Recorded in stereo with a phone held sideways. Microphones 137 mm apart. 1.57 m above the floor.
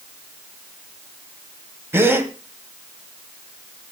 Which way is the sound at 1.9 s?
20° right (ahead or behind).